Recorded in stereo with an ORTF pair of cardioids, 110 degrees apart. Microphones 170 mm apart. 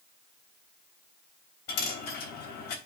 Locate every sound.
1.7 s a dropped coin: 70° left, 3 m